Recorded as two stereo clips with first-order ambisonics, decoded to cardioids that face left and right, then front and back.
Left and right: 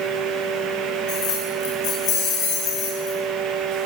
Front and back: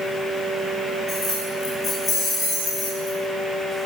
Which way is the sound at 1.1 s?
90° left.